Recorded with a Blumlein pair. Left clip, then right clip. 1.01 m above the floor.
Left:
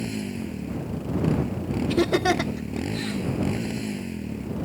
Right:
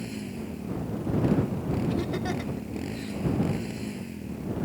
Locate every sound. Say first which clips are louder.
0.0 s a motorcycle: left 5 dB; 15° left
1.9 s laughter: left 9 dB; 60° left